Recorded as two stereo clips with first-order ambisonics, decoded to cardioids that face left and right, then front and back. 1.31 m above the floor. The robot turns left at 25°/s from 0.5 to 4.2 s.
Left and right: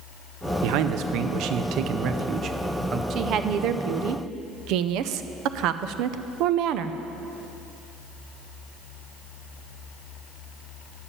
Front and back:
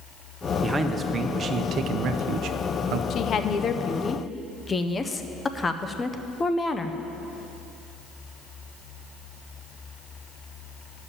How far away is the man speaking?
About 0.7 m.